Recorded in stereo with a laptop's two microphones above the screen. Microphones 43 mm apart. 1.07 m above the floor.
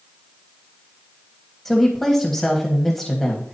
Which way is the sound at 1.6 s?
5° left (ahead or behind).